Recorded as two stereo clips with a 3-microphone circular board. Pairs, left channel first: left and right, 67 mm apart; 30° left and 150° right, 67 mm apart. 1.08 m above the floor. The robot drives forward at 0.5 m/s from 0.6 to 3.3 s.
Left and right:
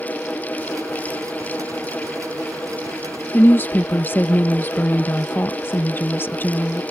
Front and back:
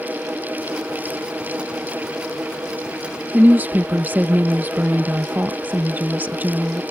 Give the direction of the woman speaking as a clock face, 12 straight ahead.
7 o'clock.